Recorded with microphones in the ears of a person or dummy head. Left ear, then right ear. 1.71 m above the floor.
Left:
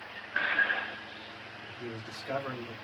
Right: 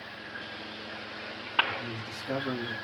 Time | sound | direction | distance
1.7 | a man speaking | 30° left (ahead or behind) | 2.5 m